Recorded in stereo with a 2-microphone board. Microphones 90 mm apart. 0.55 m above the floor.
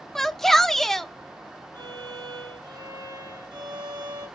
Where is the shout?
5° left (ahead or behind), 0.7 m.